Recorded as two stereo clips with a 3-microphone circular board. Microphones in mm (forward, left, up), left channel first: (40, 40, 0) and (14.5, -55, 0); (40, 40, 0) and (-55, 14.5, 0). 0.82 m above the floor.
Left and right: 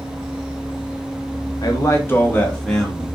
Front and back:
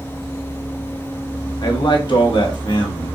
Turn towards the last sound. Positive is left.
turn(degrees=-20)